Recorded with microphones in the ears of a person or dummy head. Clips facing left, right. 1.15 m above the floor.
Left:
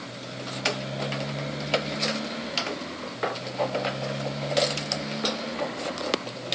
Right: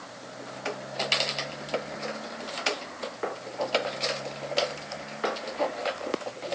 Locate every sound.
0.0 s a motorcycle: 40° left (ahead or behind); by 6.5 s 55° left (ahead or behind)